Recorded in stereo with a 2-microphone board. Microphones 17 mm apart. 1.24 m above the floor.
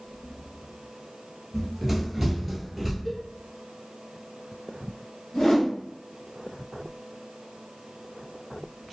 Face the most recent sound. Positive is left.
turn(degrees=60)  # may be behind; listen again after turning